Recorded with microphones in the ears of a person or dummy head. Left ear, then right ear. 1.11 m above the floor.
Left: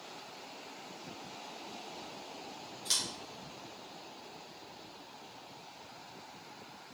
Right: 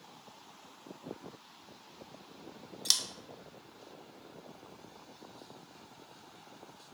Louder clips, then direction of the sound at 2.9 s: Right 3 dB; 35° right (ahead or behind).